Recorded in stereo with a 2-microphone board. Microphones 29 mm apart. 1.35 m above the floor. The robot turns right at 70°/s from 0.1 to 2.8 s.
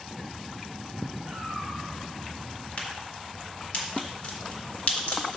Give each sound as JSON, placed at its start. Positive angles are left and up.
{"t": 1.3, "sound": "a cat meowing", "azimuth_deg": -50, "distance_m": 3.0}
{"t": 2.8, "sound": "a crack", "side_deg": 50, "distance_m": 1.9}